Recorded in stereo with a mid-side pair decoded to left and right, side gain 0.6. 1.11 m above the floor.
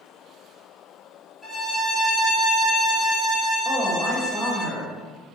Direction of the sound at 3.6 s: 20° left.